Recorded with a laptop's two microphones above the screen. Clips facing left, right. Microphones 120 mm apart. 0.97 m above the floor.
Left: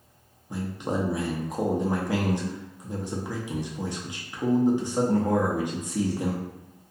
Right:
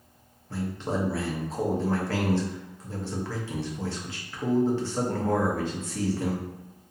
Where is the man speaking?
15° left (ahead or behind), 0.7 m.